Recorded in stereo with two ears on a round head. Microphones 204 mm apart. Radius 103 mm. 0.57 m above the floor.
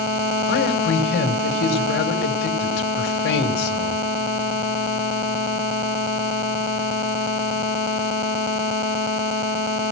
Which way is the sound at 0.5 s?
55° left (ahead or behind).